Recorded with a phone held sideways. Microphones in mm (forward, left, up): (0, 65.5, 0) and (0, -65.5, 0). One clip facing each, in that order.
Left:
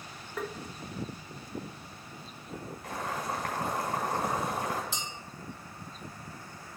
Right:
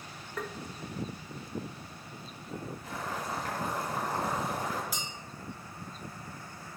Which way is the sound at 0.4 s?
5° left (ahead or behind).